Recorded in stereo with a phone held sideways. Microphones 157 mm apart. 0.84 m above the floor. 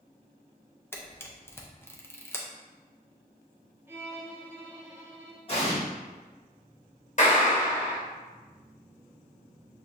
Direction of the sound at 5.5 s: 35° left (ahead or behind).